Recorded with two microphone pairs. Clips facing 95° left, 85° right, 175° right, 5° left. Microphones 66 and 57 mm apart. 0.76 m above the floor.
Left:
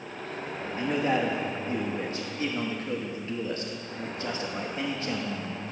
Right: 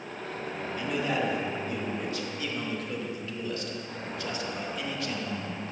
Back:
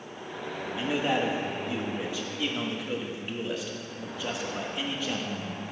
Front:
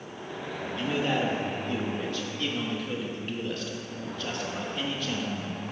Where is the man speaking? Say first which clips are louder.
Left 3 dB, even; 115° left, 1.0 m.